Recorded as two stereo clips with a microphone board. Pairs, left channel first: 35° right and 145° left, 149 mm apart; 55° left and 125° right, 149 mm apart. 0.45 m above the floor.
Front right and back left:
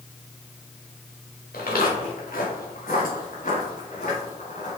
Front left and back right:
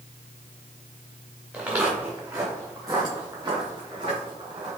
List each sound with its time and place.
1.5 s footsteps: 45° right, 3 m; by 4.8 s 75° right, 3.5 m